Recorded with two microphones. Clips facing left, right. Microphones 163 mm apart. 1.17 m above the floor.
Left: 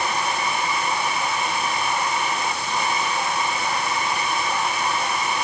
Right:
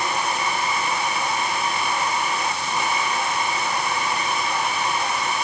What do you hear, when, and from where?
Only background noise.